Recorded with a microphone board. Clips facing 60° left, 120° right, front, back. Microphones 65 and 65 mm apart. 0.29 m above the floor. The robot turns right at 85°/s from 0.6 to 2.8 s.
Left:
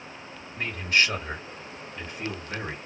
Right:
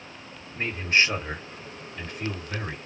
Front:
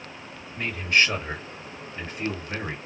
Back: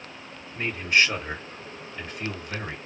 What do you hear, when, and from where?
0.6 s a man speaking: 130° right, 1.9 m; by 2.8 s 50° left, 1.9 m